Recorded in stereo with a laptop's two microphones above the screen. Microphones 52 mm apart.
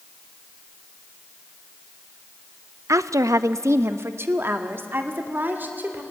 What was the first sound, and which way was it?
A woman speaking, 60° right (ahead or behind).